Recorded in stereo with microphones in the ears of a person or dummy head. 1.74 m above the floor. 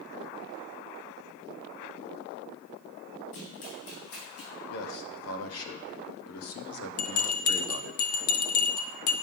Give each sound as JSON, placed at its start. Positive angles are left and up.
{"t": 3.3, "sound": "running footsteps", "side_deg": 60, "distance_m": 3.5}
{"t": 4.7, "sound": "a man speaking", "side_deg": 85, "distance_m": 1.1}
{"t": 7.0, "sound": "a bell", "side_deg": 55, "distance_m": 0.8}